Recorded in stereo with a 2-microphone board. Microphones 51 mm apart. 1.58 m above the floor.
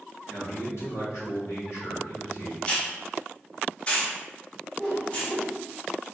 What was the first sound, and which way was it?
A man speaking, 75° left (ahead or behind).